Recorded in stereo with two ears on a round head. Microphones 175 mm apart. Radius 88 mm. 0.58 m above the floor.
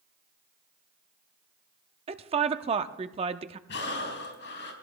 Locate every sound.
2.1 s a woman speaking: 30° right (ahead or behind), 0.7 m
3.7 s breathing: 70° left (ahead or behind), 4 m